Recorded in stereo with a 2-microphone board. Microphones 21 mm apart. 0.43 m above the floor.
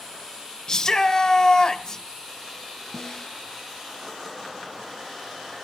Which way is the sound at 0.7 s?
30° left (ahead or behind).